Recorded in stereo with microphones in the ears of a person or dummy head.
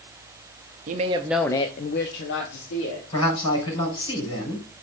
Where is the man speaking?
25° left (ahead or behind), 6 m.